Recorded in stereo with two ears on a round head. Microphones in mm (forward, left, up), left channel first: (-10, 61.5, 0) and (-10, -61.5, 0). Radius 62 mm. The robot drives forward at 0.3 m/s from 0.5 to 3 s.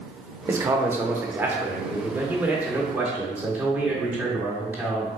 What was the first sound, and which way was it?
A man speaking, 20° right (ahead or behind).